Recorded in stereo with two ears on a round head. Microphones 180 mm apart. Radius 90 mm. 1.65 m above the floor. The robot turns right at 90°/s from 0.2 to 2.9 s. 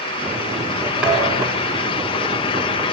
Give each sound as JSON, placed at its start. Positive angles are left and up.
{"t": 1.0, "sound": "a thud", "azimuth_deg": -175, "distance_m": 10.0}